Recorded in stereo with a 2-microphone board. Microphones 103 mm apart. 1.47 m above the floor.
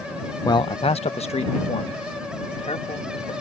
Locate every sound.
0.5 s a man speaking: 35° left (ahead or behind); by 3.3 s 75° left (ahead or behind)